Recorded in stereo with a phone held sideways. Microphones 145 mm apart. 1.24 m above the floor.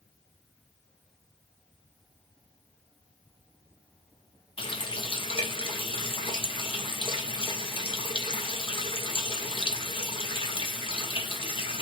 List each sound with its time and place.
4.6 s a running tap: 35° left (ahead or behind), 0.6 m